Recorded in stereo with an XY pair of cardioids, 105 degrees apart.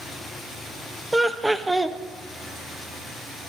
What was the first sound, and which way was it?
Laughter, 15° right.